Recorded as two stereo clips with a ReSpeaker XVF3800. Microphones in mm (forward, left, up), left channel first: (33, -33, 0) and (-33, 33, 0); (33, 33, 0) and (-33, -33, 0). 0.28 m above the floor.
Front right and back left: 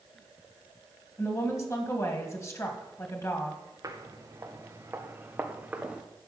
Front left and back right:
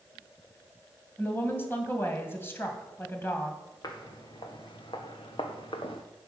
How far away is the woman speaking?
About 1.9 m.